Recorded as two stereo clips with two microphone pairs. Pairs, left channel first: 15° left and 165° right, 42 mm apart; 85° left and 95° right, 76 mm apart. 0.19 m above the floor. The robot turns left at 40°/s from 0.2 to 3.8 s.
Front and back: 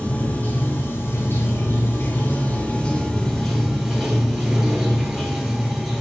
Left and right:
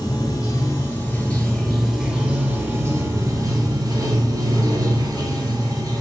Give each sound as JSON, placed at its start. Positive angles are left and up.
{"t": 0.0, "sound": "running water", "azimuth_deg": 55, "distance_m": 0.9}